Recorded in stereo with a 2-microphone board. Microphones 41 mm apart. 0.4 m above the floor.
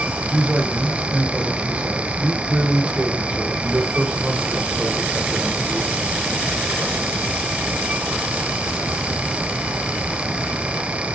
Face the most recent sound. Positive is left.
turn(degrees=-25)  # may be behind; listen again after turning